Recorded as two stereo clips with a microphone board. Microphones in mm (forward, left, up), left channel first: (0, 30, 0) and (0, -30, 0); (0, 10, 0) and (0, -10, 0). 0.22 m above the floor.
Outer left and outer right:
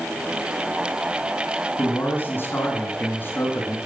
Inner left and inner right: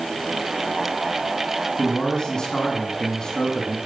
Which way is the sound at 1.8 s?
35° left (ahead or behind).